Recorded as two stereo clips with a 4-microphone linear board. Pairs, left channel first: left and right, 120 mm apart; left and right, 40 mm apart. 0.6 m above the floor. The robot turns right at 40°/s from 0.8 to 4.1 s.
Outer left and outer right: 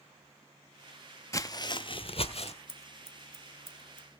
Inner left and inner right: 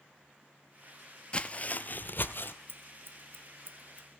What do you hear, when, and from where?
1.3 s footsteps: 25° left (ahead or behind), 0.6 m; by 2.5 s 55° left (ahead or behind), 1.0 m
2.7 s scissors: 70° right (ahead or behind), 1.2 m; by 4.1 s 35° right (ahead or behind), 1.2 m